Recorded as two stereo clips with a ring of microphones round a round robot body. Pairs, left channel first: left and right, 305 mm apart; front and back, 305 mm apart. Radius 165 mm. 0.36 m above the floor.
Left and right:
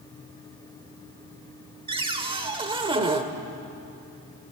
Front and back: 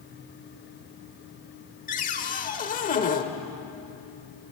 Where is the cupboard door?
35° right, 1.3 m.